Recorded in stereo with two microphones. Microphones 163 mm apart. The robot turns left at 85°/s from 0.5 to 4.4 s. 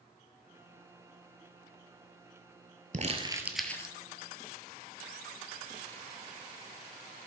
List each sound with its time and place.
2.9 s crumpling: 50° right (ahead or behind), 0.8 m; by 4.0 s 30° left (ahead or behind), 0.8 m